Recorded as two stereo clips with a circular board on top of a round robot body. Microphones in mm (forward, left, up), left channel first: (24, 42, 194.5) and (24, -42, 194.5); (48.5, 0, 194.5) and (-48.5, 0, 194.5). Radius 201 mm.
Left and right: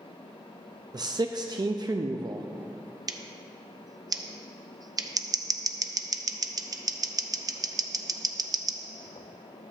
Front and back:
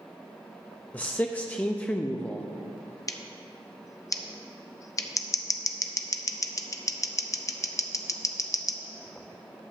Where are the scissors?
55° right, 0.6 m.